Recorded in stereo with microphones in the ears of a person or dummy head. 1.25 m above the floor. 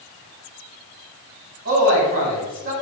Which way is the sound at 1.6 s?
45° right (ahead or behind).